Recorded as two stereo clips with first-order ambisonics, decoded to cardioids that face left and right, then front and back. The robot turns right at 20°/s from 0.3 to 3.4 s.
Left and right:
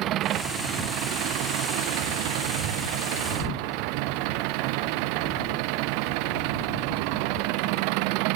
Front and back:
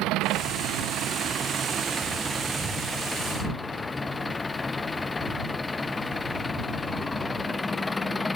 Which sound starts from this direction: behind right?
An engine running, at 0.0 s.